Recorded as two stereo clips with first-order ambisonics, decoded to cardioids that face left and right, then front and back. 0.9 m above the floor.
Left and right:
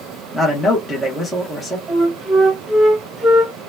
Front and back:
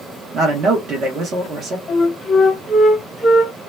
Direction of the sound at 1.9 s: 50° right.